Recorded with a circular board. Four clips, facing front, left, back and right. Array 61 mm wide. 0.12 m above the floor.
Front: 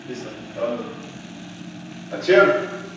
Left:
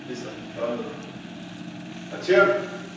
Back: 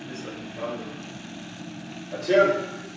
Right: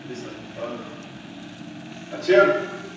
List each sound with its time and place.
0.1 s running footsteps: 20° left, 1.9 m; by 3.0 s 25° right, 0.7 m